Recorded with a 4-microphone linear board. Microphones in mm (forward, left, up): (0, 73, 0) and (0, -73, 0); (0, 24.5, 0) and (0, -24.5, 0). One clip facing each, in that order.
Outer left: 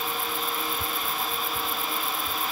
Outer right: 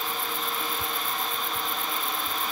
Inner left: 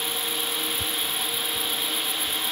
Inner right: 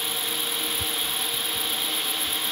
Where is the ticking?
No ticking in this recording.